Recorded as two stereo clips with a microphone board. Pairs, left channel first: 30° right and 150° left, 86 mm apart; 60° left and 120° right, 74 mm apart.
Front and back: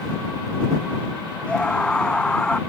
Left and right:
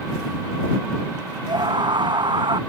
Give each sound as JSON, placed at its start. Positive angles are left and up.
{"t": 1.5, "sound": "a scream", "azimuth_deg": -110}